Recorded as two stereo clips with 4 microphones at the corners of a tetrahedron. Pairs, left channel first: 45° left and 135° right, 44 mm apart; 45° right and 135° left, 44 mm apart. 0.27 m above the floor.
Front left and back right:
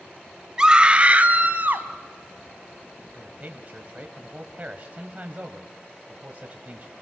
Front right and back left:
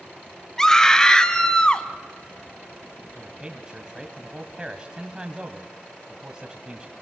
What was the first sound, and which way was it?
A scream, 100° right.